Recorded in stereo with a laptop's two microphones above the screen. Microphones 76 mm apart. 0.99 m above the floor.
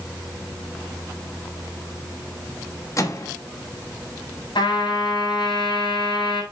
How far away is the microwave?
About 1.0 m.